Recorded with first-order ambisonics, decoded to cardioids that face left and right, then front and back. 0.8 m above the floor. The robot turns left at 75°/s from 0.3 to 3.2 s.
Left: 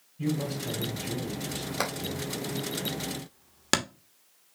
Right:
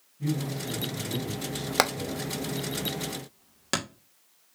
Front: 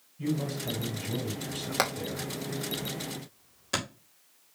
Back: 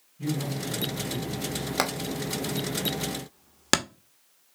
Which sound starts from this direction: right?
Hammering, at 1.8 s.